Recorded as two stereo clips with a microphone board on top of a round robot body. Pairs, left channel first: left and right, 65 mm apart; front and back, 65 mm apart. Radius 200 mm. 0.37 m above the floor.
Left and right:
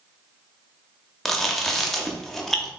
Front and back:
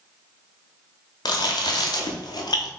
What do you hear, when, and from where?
1.2 s chewing: 5° left, 0.7 m